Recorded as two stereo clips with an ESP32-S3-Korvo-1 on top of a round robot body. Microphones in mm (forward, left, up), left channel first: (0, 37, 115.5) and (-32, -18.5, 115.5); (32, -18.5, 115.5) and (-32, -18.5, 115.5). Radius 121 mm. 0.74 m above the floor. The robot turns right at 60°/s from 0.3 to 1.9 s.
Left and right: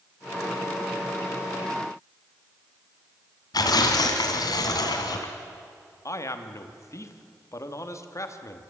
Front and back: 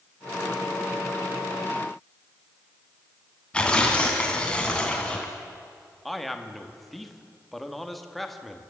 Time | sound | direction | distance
3.5 | tearing paper | 80° left | 1.8 m
6.0 | a man speaking | 90° left | 1.7 m